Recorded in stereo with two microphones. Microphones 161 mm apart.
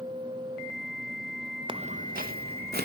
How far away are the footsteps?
About 0.6 m.